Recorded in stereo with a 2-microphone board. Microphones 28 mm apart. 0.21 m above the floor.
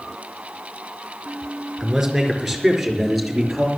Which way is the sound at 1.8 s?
5° right (ahead or behind).